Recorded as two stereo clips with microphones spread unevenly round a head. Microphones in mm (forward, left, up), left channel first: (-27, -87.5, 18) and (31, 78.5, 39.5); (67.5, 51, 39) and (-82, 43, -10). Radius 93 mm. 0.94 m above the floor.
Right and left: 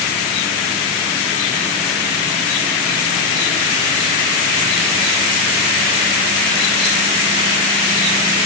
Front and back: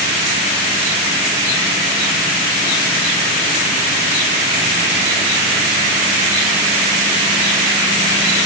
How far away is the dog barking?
I don't hear a dog barking.